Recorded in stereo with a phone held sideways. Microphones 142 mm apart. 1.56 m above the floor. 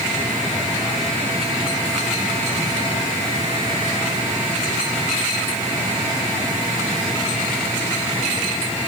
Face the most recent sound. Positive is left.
No sound to turn to.